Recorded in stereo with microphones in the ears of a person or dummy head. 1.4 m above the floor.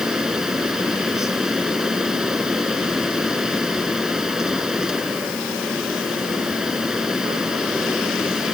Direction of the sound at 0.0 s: 5° right (ahead or behind).